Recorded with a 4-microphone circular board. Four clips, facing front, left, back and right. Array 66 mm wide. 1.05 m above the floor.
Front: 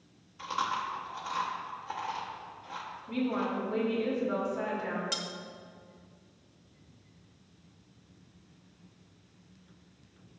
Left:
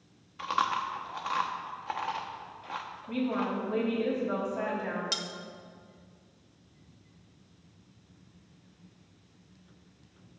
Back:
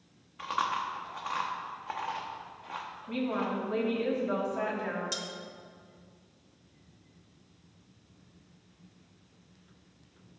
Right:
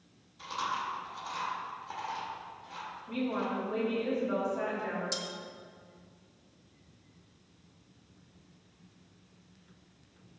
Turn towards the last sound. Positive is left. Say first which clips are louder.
# left 2 dB, front 1 dB
turn(degrees=65)